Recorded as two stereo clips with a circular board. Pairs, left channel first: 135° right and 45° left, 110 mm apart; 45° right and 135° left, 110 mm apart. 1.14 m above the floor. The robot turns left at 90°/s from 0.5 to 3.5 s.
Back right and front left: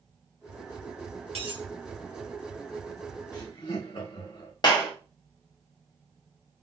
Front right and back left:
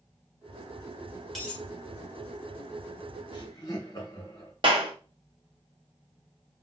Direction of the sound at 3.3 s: 80° right.